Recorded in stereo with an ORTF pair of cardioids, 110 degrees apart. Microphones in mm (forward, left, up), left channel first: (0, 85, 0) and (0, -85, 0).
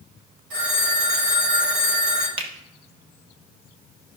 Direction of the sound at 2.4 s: 30° right.